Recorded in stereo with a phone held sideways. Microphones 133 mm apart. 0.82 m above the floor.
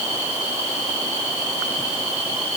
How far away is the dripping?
I don't hear dripping.